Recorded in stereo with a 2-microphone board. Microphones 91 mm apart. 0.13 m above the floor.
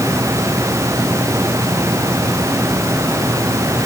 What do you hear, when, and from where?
Only background noise.